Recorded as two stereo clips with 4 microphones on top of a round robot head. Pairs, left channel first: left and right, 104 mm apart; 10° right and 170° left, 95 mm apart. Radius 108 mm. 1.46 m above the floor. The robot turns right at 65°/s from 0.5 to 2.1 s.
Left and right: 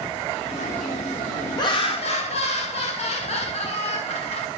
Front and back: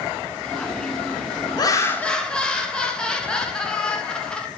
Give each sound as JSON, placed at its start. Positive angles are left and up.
{"t": 1.6, "sound": "laughter", "azimuth_deg": 35, "distance_m": 1.4}